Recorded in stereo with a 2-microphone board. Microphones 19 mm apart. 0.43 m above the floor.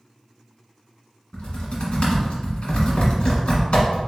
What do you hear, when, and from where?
1.3 s typing on a keyboard: 65° left (ahead or behind), 1.8 m